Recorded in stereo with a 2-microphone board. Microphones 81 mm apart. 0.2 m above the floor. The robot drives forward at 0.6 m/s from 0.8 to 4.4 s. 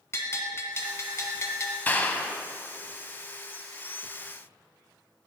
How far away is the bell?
About 1.5 m.